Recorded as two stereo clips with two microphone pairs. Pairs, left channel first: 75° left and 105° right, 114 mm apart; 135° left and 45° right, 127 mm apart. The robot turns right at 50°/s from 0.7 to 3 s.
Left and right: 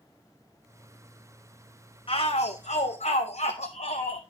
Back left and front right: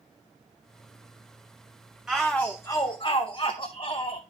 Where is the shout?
35° left, 0.7 m; by 4.2 s 85° left, 0.7 m.